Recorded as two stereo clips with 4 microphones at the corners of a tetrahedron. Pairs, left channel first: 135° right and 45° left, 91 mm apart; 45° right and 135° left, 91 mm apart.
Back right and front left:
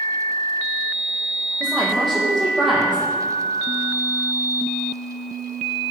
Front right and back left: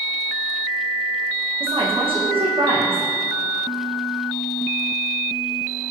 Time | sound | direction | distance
1.6 | a woman speaking | 135° left | 7 m